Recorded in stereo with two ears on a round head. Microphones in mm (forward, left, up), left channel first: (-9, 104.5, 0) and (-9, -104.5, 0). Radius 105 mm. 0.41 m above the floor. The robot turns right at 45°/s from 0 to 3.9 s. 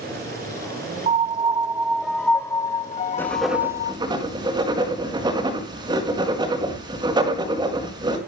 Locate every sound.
1.1 s a piano: 50° right, 0.5 m; by 4.0 s 80° left, 0.5 m
3.2 s writing: 10° left (ahead or behind), 4.5 m; by 8.2 s 20° right (ahead or behind), 4.5 m